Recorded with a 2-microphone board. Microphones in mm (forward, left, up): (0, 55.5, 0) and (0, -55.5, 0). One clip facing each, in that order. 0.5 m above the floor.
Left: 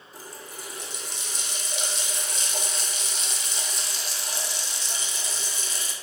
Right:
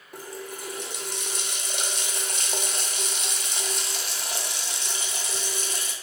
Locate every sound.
0.1 s a running tap: 55° right (ahead or behind), 0.7 m